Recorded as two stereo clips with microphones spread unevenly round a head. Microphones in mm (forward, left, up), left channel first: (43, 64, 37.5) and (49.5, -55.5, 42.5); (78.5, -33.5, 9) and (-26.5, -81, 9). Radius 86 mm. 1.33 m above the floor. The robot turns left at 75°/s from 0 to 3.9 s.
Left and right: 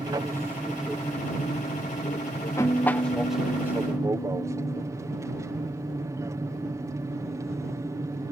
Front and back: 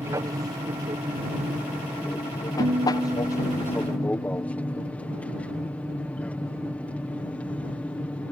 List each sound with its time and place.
0.0 s an aircraft: 110° right; by 8.3 s 45° right
2.6 s a guitar: straight behind; by 4.8 s 80° left